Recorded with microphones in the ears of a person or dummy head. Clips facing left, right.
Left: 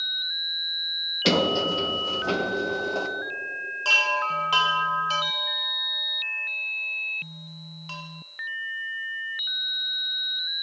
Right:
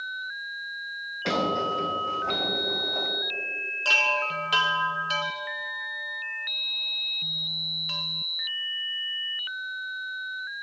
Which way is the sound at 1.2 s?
45° left (ahead or behind).